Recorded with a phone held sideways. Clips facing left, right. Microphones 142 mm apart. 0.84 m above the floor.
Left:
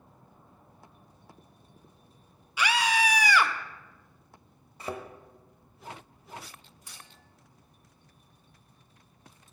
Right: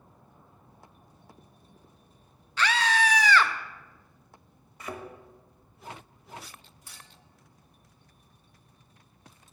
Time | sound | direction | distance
2.6 | a scream | 10° left (ahead or behind) | 0.5 m
4.8 | a thud | 30° left (ahead or behind) | 0.8 m
6.9 | a clink | 15° left (ahead or behind) | 2 m